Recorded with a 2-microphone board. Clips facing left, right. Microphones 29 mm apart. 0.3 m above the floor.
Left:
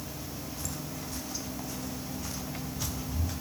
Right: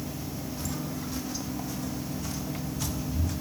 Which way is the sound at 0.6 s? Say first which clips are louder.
Right 5 dB; 20° right (ahead or behind).